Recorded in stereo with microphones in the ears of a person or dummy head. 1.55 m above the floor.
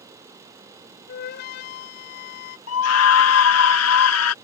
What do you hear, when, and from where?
1.1 s a flute: 60° left (ahead or behind)
2.7 s a scream: 80° left